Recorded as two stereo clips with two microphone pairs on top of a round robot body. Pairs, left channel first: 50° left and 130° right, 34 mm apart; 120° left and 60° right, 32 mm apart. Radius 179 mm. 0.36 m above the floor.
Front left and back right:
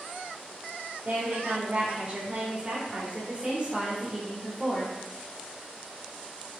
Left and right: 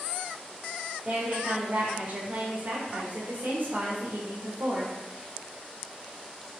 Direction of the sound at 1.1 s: 115° right.